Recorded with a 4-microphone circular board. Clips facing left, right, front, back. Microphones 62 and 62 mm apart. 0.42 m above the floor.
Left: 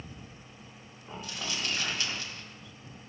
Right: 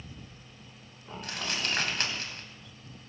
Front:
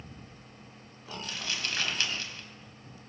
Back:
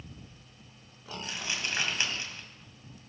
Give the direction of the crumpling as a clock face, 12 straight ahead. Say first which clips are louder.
Right 2 dB, back 1 dB; 4 o'clock.